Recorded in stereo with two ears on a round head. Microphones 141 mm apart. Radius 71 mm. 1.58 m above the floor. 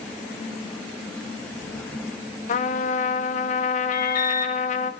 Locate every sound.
2.5 s a trumpet: 45° left (ahead or behind), 0.6 m
3.9 s an alarm: 55° left (ahead or behind), 1.6 m